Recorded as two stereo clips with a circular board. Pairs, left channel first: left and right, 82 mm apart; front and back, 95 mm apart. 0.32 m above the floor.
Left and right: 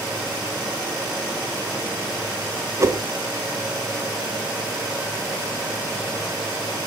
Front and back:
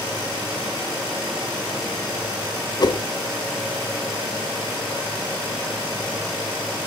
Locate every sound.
2.8 s a whoosh: 40° right, 0.7 m